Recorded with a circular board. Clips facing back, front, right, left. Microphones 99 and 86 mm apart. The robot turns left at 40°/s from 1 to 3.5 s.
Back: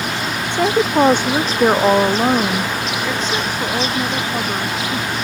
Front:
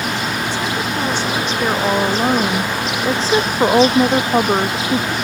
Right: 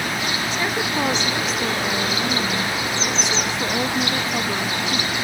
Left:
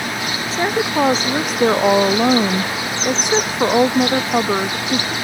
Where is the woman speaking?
145° left; by 5.1 s 45° left.